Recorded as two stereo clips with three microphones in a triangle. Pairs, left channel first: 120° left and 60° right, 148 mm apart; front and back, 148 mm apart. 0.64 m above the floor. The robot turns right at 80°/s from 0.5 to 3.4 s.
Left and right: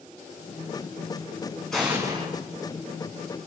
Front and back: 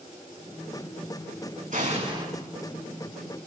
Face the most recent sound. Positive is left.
turn(degrees=-20)